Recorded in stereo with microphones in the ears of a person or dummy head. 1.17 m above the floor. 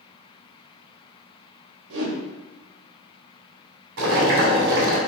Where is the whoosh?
70° right (ahead or behind), 1.7 m.